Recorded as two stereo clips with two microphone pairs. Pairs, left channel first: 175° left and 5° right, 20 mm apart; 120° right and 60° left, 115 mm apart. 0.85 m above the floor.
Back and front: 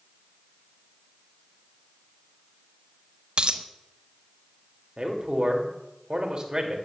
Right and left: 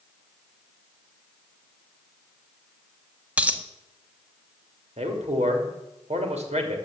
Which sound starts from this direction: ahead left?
A man speaking, at 5.0 s.